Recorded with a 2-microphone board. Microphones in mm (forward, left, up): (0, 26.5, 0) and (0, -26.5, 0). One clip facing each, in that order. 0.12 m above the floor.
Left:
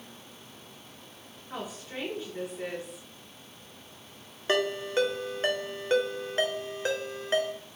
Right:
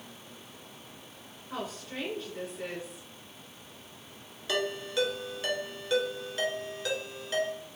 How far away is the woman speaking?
About 1.9 m.